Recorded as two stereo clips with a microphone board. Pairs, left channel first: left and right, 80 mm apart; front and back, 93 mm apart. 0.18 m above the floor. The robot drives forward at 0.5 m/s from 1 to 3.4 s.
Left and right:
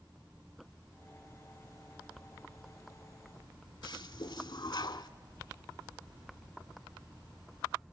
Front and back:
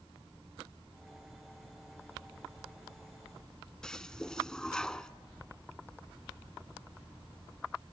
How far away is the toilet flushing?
About 0.6 m.